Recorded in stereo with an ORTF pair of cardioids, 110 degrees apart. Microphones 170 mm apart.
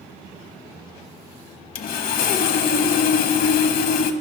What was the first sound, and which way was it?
Sawing, 60° left.